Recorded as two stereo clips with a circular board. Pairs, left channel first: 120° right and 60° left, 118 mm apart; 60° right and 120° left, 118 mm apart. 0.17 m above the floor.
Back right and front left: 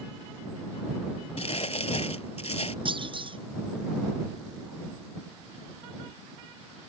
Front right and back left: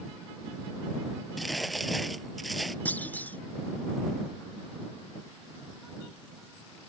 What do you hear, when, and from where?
1.4 s crumpling: 150° right
2.9 s a clunk: 15° left